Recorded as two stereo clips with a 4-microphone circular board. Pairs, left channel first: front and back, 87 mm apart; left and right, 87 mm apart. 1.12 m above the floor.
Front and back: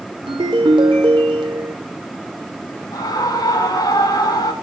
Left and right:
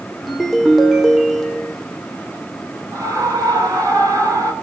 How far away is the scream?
About 5.5 m.